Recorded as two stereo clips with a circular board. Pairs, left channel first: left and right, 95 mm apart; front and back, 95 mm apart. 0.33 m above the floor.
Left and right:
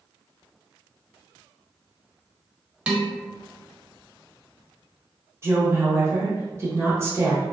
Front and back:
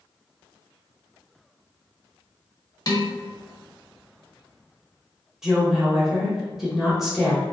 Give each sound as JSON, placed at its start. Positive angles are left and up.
{"t": 2.9, "sound": "dishes clattering", "azimuth_deg": -15, "distance_m": 0.8}
{"t": 5.4, "sound": "a woman speaking", "azimuth_deg": -100, "distance_m": 1.0}